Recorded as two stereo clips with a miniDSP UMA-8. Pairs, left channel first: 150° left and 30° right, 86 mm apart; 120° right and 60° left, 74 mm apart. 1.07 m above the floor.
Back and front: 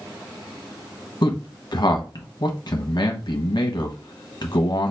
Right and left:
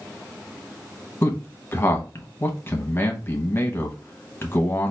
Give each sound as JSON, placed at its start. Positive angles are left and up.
{"t": 1.2, "sound": "a man speaking", "azimuth_deg": 180, "distance_m": 1.1}